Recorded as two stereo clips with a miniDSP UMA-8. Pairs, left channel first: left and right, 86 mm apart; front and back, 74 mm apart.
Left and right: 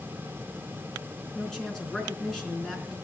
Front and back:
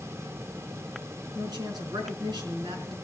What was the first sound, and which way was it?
A woman speaking, 175° left.